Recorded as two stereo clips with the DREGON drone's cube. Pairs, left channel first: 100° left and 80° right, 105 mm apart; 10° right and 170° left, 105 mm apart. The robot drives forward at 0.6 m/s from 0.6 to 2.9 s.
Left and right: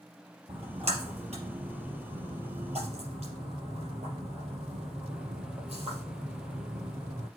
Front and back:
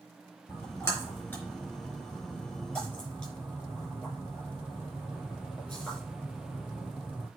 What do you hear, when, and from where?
0.5 s a splash: 80° right, 4.5 m; by 7.3 s 95° right, 4.5 m